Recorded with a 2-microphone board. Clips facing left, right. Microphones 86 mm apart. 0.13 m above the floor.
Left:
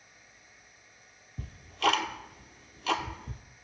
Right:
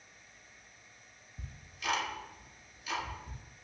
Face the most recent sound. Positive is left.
turn(degrees=80)